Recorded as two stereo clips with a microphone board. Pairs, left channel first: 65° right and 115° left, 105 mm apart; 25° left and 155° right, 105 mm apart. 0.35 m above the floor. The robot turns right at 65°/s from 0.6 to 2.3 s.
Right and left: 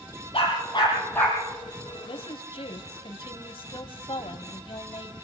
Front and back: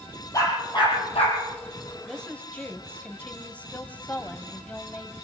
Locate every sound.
0.3 s a dog barking: 35° right, 5 m; by 1.4 s 15° left, 5 m
2.1 s a woman speaking: 65° right, 1.8 m; by 5.1 s 50° right, 1.8 m